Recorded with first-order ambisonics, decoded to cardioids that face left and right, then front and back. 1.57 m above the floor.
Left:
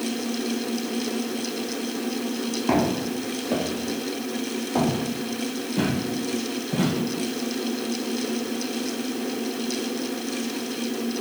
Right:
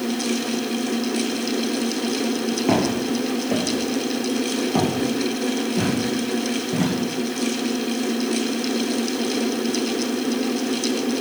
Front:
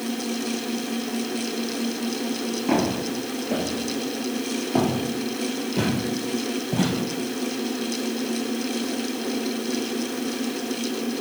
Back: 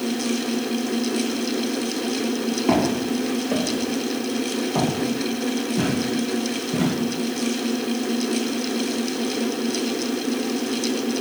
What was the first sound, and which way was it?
Footsteps, 110° right.